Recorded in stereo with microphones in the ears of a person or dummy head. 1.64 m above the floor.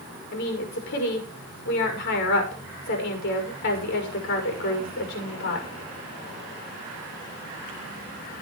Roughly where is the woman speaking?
Left.